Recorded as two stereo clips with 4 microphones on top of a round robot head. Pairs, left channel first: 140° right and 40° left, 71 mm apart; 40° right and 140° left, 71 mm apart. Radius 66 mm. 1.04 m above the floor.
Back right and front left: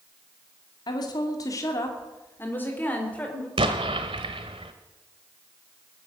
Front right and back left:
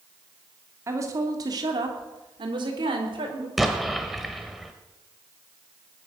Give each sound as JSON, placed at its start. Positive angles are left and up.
{"t": 0.9, "sound": "a woman speaking", "azimuth_deg": -165, "distance_m": 2.5}
{"t": 3.6, "sound": "an explosion", "azimuth_deg": 55, "distance_m": 1.0}